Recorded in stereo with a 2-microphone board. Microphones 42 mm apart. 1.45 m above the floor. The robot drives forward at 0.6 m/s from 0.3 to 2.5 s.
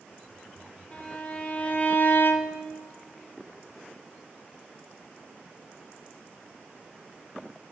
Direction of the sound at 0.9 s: 25° left (ahead or behind).